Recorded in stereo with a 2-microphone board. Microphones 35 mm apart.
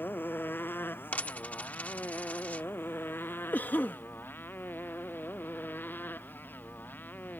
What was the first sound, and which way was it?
A motorcycle, 75° left (ahead or behind).